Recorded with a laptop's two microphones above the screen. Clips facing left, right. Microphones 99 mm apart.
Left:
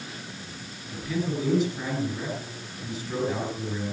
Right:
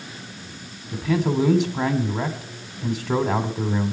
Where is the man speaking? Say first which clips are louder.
Right 7 dB; 85° right, 2.5 m.